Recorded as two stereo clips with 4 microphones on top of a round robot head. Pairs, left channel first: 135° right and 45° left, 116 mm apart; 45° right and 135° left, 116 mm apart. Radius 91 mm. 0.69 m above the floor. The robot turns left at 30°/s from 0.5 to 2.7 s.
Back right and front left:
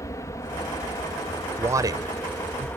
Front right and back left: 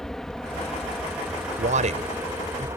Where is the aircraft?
125° right; by 2.8 s 170° left.